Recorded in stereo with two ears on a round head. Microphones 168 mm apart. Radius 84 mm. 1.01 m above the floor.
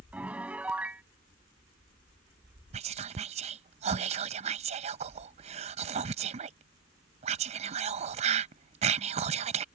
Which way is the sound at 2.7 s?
35° right (ahead or behind).